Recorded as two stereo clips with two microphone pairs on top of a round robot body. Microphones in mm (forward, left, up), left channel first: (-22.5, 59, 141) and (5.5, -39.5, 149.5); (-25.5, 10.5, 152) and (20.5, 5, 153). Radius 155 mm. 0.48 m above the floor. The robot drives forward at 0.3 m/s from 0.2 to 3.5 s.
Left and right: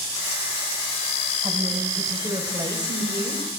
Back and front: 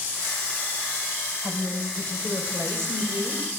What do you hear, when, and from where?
1.4 s a woman speaking: 20° right, 3.5 m; by 3.5 s 25° right, 3 m